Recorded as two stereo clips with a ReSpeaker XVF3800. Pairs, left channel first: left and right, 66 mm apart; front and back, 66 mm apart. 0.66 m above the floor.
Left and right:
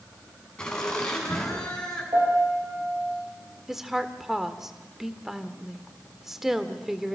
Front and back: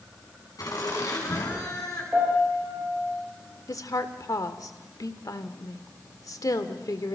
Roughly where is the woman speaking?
Ahead.